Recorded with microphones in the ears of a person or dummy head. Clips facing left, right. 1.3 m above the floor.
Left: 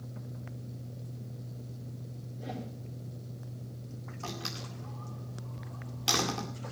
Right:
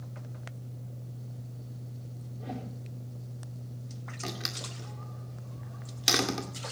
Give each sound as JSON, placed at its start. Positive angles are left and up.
{"t": 2.4, "sound": "a whoosh", "side_deg": 5, "distance_m": 4.5}
{"t": 4.2, "sound": "a door slam", "side_deg": -25, "distance_m": 2.0}